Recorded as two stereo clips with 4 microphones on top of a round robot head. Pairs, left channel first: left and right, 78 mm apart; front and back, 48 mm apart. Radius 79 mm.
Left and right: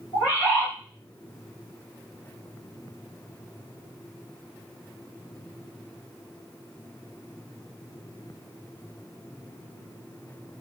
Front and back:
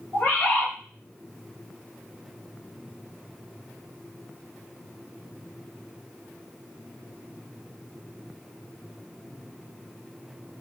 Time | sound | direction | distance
0.1 | a bird | 55° left | 1.2 m